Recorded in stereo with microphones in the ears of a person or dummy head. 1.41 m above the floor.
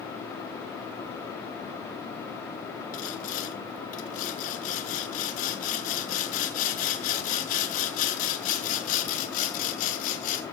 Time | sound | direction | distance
2.9 | sawing | 40° left (ahead or behind) | 1.4 m